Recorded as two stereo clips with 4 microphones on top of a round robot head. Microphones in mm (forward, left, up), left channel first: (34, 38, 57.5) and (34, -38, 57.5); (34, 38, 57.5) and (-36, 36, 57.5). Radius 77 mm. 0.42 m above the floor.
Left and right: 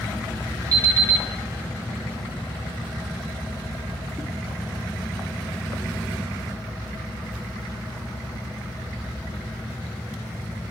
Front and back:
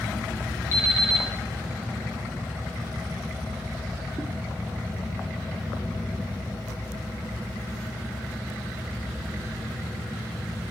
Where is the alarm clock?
50° right, 3 m.